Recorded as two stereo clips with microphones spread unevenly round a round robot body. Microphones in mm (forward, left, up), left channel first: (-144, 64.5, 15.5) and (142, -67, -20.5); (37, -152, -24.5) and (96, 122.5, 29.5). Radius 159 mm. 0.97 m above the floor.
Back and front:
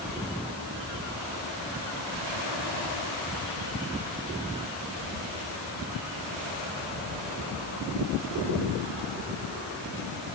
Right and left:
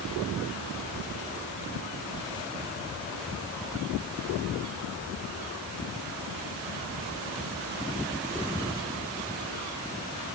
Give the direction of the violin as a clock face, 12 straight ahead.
I don't hear a violin.